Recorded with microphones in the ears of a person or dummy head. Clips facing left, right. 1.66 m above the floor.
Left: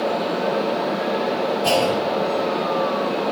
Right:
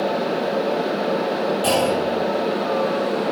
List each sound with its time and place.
1.6 s a clunk: 40° right (ahead or behind), 7.5 m